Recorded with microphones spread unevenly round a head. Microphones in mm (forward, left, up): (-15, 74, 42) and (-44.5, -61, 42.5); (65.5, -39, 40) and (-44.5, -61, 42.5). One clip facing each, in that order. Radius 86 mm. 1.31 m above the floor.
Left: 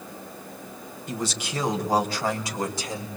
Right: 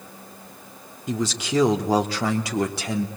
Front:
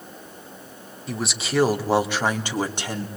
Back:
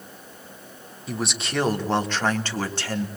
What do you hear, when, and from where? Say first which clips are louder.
1.1 s a man speaking: right 6 dB, front 1 dB; 80° right, 3.5 m; by 3.1 s 60° right, 3 m